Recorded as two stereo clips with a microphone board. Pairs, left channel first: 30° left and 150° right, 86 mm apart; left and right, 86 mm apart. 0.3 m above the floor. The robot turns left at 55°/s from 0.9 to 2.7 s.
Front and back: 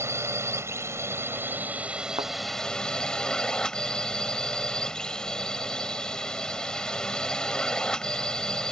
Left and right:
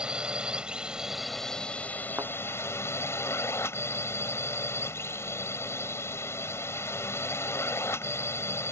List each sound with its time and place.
0.0 s a drone: 160° right; by 8.7 s 105° left
2.2 s a thud: 145° right; by 2.3 s 150° right